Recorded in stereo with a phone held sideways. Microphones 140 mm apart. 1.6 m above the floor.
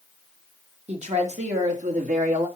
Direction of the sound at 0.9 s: 55° right (ahead or behind).